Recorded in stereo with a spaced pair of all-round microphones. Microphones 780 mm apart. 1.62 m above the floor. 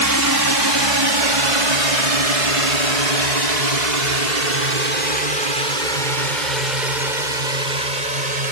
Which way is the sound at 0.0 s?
25° right (ahead or behind).